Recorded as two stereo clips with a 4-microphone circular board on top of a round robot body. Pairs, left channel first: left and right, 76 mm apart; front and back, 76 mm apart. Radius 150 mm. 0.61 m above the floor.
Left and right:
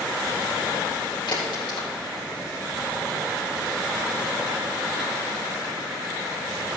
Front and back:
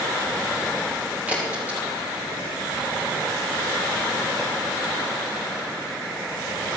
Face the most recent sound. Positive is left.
turn(degrees=110)